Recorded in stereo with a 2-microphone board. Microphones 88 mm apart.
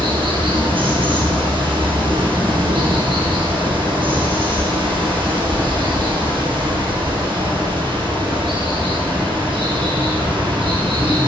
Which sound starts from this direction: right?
Running water, at 0.0 s.